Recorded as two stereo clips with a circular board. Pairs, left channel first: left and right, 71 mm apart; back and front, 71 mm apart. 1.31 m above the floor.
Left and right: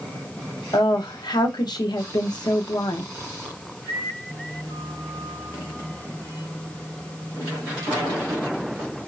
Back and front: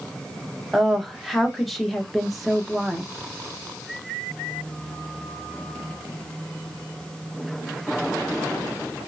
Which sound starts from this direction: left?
A woman speaking, at 0.7 s.